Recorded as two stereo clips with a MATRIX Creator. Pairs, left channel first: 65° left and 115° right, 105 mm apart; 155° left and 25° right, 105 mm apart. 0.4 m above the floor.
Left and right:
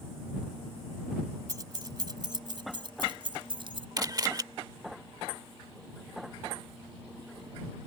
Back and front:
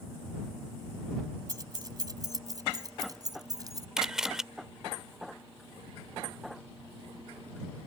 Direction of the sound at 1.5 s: 65° right.